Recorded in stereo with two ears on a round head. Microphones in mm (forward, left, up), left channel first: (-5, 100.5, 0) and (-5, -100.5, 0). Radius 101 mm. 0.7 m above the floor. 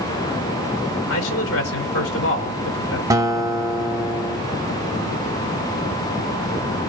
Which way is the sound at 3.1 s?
15° right (ahead or behind).